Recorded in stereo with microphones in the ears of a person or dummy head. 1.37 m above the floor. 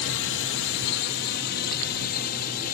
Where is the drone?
60° left (ahead or behind); by 2.7 s 50° left (ahead or behind).